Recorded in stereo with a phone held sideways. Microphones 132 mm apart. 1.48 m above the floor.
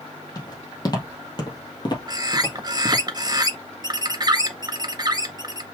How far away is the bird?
About 0.7 m.